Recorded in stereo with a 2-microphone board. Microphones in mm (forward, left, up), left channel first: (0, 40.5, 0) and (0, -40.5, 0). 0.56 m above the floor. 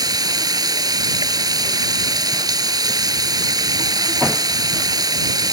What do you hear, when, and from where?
0.0 s running water: 60° right (ahead or behind)